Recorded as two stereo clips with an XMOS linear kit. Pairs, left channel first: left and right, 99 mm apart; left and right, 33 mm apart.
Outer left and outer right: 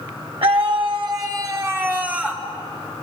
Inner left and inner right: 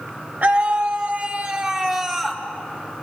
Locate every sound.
0.4 s a scream: 65° right (ahead or behind), 2.5 m; by 2.4 s 5° right (ahead or behind), 2.5 m